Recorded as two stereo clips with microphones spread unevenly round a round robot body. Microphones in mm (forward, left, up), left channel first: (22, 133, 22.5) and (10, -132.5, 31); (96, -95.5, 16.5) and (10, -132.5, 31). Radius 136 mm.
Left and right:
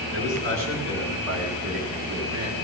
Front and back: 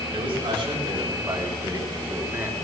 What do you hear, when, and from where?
0.1 s a man speaking: 140° right, 4 m; by 2.5 s 90° right, 3.5 m